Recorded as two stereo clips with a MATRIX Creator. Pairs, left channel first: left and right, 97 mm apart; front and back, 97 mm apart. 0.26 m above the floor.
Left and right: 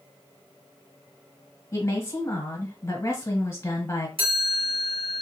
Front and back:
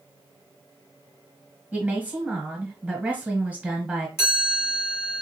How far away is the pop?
I don't hear a pop.